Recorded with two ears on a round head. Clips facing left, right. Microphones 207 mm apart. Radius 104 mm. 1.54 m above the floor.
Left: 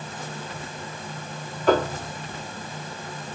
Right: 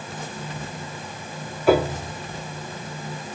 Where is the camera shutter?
I don't hear a camera shutter.